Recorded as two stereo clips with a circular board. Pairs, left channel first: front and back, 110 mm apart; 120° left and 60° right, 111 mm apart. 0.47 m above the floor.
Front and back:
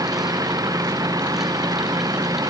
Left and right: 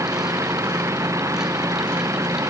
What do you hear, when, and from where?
0.0 s an engine running: 120° right